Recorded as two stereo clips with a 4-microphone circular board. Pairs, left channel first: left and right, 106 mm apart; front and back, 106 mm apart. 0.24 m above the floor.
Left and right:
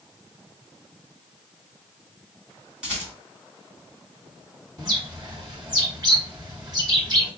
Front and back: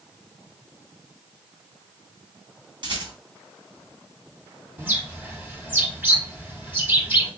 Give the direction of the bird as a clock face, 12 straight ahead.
4 o'clock.